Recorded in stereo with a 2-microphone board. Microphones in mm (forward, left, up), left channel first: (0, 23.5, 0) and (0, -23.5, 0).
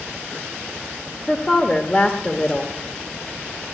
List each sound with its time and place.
1.3 s a woman speaking: 25° left (ahead or behind), 0.9 m